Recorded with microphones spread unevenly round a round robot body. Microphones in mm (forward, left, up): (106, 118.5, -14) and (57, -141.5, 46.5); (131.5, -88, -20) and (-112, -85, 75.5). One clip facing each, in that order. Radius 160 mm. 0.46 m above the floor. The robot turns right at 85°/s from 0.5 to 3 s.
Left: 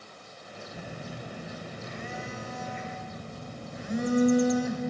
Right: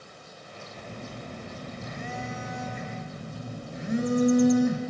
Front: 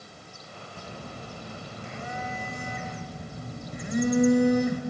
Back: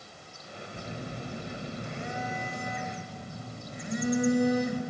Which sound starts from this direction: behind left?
A phone buzzing, at 0.7 s.